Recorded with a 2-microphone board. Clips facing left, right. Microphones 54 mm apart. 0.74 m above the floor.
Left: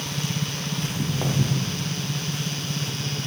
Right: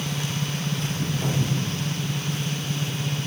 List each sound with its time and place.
0.8 s footsteps: 55° left (ahead or behind), 4.5 m